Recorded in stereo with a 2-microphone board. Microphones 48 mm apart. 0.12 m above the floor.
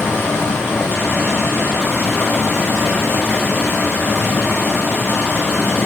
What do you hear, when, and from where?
0.0 s running water: 55° left (ahead or behind), 1.3 m